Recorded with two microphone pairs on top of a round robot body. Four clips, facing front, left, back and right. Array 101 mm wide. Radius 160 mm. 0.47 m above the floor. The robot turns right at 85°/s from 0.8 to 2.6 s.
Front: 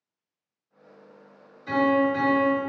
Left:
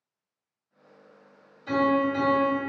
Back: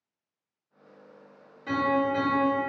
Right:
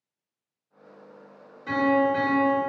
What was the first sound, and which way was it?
A piano, 145° right.